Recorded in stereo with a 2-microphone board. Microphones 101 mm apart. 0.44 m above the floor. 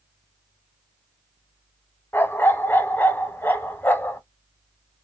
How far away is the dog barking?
About 0.7 m.